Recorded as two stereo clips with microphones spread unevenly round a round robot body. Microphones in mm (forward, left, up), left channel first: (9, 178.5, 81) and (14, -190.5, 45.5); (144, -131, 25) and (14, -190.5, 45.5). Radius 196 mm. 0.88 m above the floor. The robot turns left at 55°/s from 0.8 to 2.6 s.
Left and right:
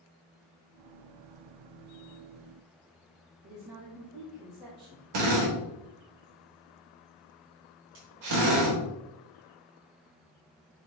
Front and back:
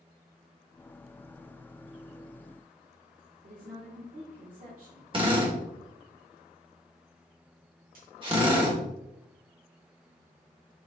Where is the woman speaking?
135° right, 3 m.